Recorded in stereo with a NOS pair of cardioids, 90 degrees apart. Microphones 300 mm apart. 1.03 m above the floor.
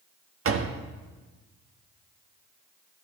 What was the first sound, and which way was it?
A door slam, 45° right.